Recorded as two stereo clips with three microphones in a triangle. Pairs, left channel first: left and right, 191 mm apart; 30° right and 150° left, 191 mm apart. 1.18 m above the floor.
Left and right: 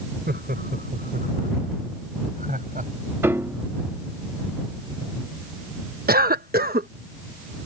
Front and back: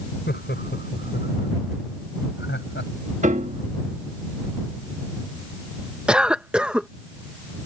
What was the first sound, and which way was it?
Laughter, 60° right.